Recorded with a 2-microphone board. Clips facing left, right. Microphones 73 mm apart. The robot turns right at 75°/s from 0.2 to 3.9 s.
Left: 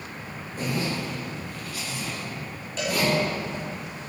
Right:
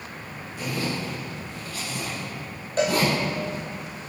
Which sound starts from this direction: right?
A cowbell, at 2.8 s.